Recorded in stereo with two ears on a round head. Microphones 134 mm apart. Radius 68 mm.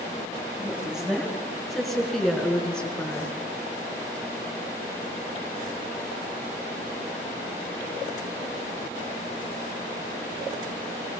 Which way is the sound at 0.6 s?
5° right (ahead or behind).